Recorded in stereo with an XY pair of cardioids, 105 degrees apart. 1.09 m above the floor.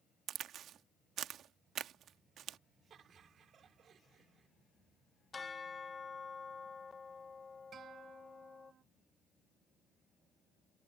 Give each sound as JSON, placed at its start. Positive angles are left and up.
{"t": 0.3, "sound": "a crack", "azimuth_deg": -70}
{"t": 2.9, "sound": "laughter", "azimuth_deg": -55}
{"t": 5.3, "sound": "a bell", "azimuth_deg": 30}
{"t": 7.7, "sound": "a guitar", "azimuth_deg": -55}